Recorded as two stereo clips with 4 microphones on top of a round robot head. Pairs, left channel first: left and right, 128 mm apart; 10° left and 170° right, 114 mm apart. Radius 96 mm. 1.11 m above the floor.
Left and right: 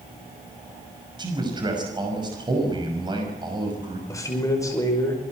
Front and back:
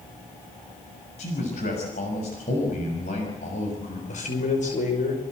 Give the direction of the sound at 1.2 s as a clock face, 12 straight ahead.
1 o'clock.